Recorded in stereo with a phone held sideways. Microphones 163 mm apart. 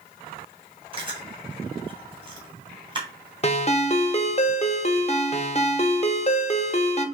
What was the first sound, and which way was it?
Chewing, 30° right (ahead or behind).